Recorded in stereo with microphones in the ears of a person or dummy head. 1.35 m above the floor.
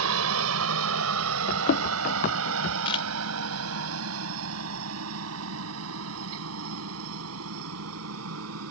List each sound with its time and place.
0.0 s a helicopter: 75° right (ahead or behind); by 8.7 s 80° right
1.5 s running footsteps: 50° left (ahead or behind)
2.9 s a camera shutter: 30° left (ahead or behind)